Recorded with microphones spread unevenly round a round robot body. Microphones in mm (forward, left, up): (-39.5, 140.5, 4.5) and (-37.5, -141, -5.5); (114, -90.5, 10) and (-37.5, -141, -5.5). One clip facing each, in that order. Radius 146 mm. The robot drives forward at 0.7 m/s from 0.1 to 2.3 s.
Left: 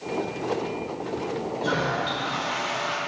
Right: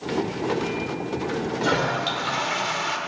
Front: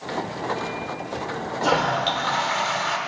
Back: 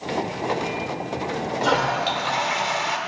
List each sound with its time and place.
1.6 s a toilet flushing: 70° right, 1.3 m; by 3.0 s 90° right, 1.2 m